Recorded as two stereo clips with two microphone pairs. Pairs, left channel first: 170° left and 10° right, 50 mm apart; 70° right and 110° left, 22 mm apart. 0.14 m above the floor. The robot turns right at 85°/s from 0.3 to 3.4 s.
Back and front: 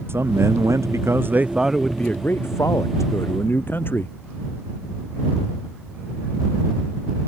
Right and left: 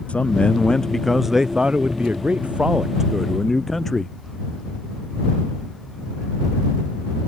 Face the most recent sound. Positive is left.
turn(degrees=-145)